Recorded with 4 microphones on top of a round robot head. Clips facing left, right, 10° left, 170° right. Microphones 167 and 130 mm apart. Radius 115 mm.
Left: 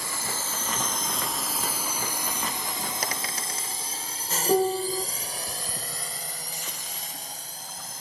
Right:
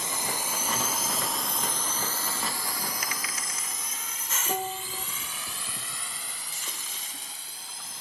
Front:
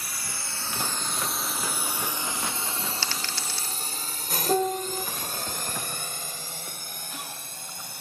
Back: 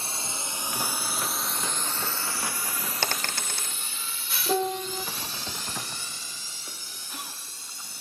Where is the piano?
95° left.